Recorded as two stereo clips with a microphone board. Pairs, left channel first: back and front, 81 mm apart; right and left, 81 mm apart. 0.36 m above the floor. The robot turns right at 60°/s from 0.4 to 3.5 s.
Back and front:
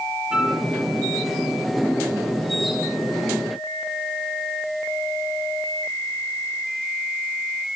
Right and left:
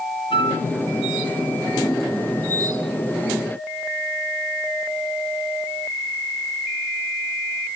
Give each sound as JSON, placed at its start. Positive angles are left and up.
{"t": 0.3, "sound": "a flute", "azimuth_deg": -80, "distance_m": 5.0}